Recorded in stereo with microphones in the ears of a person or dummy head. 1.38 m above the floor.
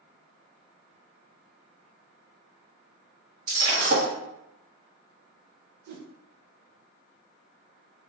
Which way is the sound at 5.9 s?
60° right (ahead or behind).